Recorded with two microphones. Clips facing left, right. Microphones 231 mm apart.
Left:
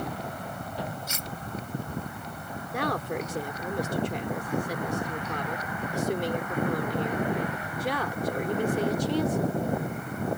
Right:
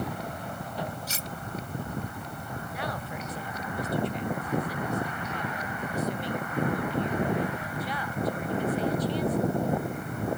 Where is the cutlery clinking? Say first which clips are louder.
Even; 35° right (ahead or behind).